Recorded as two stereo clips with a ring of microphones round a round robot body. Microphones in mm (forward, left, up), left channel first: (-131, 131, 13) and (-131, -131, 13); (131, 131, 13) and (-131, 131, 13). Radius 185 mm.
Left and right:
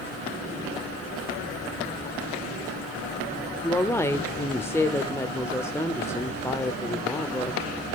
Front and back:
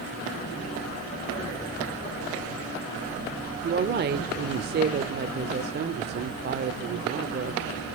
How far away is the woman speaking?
About 1.0 m.